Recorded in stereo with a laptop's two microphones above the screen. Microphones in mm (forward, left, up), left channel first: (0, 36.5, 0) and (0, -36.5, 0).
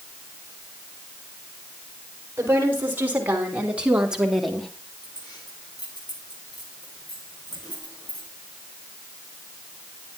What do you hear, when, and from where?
2.4 s a woman speaking: 35° right (ahead or behind), 4.5 m; by 4.7 s 5° left (ahead or behind), 1.9 m
5.0 s keys jangling: 80° left, 9.5 m